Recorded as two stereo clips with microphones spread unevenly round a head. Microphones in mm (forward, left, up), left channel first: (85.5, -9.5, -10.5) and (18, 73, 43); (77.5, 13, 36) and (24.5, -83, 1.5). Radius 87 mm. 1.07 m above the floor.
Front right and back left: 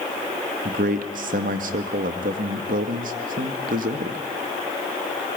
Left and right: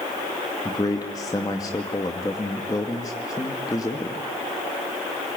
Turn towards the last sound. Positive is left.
turn(degrees=135)